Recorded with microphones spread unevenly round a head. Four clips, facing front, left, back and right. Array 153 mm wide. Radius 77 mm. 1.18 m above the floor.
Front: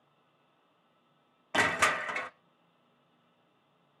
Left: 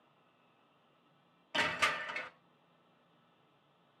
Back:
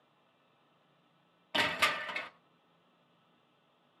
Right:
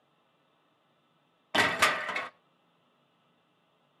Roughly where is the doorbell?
No doorbell in this recording.